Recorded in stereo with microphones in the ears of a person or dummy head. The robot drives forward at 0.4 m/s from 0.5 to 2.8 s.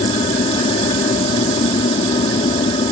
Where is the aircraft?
30° left (ahead or behind).